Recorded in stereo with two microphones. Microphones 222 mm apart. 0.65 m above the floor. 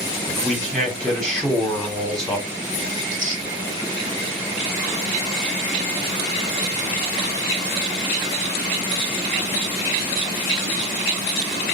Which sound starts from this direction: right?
Tearing paper, at 3.0 s.